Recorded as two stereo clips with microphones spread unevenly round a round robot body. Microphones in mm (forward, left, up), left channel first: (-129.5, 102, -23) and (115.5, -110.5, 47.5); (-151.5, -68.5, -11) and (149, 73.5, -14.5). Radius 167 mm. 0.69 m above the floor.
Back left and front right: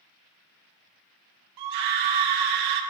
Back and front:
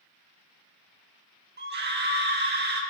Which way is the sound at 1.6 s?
30° right.